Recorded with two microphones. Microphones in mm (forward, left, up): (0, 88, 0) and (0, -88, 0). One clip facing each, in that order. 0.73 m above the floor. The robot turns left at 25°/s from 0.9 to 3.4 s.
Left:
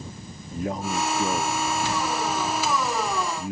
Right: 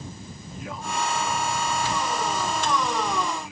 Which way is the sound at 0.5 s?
125° left.